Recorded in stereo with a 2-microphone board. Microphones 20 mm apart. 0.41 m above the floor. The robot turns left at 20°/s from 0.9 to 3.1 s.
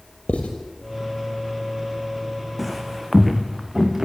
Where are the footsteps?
Centre (ahead or behind), 2.0 m; by 4.1 s 20° right (ahead or behind), 3.5 m.